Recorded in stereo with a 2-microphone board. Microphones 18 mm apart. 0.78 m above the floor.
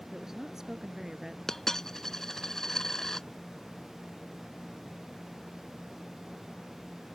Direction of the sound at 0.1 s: 25° right (ahead or behind).